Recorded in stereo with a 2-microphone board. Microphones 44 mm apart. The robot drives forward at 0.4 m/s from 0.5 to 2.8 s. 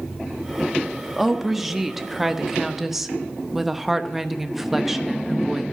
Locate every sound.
1.2 s a woman speaking: 5° right (ahead or behind), 1.5 m